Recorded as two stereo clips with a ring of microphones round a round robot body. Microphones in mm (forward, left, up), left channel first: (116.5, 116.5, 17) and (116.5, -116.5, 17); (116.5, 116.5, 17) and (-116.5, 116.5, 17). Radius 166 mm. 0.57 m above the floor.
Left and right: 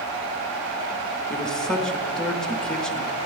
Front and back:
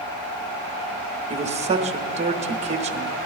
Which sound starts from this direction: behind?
A man speaking, at 1.3 s.